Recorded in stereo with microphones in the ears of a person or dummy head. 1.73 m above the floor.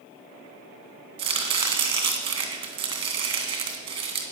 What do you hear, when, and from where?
1.2 s chopping: 30° right (ahead or behind), 2 m